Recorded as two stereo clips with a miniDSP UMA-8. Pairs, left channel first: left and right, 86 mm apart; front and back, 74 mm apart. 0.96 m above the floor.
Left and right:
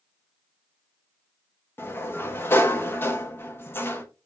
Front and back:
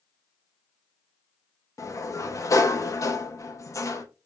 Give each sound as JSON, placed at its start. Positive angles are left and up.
{"t": 1.8, "sound": "a sliding door", "azimuth_deg": 30, "distance_m": 0.9}